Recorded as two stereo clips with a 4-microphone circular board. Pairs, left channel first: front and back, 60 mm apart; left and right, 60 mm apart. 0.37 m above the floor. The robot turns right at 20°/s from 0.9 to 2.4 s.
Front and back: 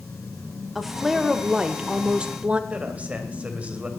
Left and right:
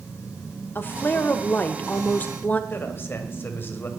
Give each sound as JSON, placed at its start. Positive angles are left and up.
{"t": 0.8, "sound": "a woman speaking", "azimuth_deg": 95, "distance_m": 1.0}
{"t": 2.7, "sound": "a man speaking", "azimuth_deg": 120, "distance_m": 2.0}